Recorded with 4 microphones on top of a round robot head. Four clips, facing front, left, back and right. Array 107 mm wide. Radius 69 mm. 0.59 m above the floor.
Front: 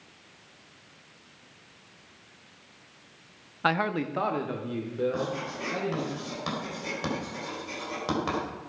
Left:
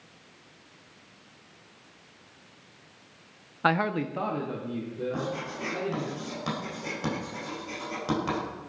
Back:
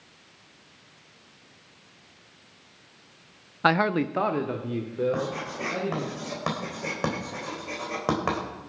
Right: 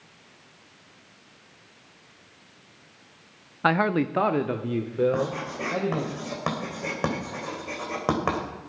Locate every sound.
3.6 s a man speaking: 175° right, 0.6 m; by 6.1 s 100° right, 2.5 m
5.1 s writing: 125° right, 3.5 m